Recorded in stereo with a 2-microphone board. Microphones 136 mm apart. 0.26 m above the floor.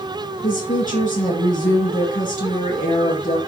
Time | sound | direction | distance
0.4 | a woman speaking | 75° left (ahead or behind) | 6 m